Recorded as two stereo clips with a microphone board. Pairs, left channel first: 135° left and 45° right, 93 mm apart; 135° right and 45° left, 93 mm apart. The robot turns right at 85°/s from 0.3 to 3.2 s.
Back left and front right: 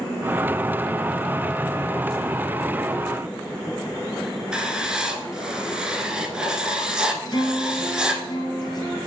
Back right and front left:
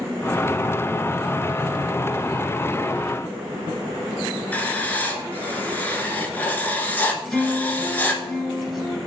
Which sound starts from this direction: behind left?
A guitar, at 7.2 s.